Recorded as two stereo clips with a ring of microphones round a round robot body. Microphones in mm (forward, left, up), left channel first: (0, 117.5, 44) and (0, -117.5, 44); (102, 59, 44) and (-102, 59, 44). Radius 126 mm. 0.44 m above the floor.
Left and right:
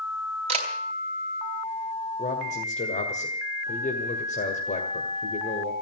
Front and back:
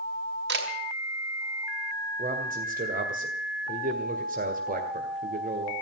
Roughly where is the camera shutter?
Behind right.